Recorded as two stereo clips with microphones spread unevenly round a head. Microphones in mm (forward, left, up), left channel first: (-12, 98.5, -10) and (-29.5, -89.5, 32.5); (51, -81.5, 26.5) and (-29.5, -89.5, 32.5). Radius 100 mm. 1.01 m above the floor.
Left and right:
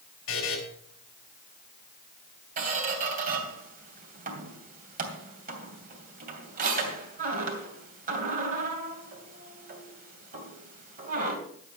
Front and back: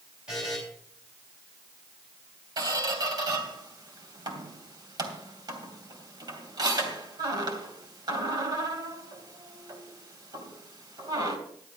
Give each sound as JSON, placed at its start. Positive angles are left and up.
{"t": 0.3, "sound": "a buzzer", "azimuth_deg": 100, "distance_m": 5.0}
{"t": 2.6, "sound": "a squeak", "azimuth_deg": -140, "distance_m": 2.5}